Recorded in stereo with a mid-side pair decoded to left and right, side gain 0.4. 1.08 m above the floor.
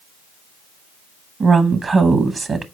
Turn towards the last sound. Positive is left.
turn(degrees=-45)